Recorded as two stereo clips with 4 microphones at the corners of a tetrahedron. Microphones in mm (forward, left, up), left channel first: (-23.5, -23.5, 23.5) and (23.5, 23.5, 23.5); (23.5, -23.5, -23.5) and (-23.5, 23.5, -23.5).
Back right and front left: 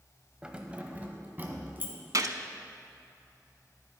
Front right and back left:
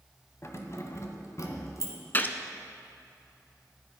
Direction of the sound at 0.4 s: 25° right.